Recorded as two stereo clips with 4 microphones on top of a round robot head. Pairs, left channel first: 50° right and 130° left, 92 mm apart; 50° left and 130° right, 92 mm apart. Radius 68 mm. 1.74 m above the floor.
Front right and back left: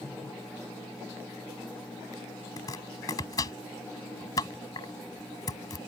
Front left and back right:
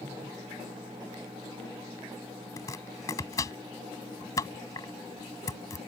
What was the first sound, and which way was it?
Chopping, straight ahead.